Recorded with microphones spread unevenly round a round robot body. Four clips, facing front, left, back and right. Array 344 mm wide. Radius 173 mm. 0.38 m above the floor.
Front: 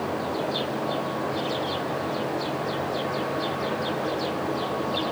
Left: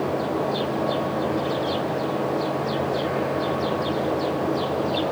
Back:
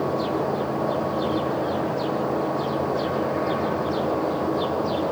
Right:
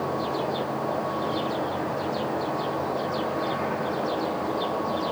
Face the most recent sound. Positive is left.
No sound to turn to.